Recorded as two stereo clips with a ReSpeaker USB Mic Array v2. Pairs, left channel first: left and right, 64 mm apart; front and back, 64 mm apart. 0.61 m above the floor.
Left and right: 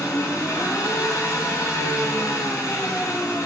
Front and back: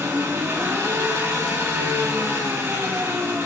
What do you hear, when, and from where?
0.0 s an engine running: 130° left, 5 m